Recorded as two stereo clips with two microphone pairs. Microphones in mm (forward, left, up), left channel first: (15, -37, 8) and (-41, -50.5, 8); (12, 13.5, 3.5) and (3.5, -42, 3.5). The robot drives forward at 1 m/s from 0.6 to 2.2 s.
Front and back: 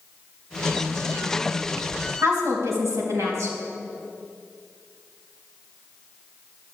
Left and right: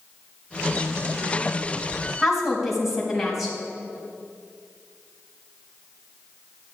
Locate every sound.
2.2 s a woman speaking: 175° left, 3.5 m